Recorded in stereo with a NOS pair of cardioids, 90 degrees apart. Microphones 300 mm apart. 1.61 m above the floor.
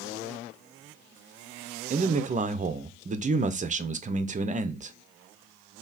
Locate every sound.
1.9 s a man speaking: 25° right, 0.7 m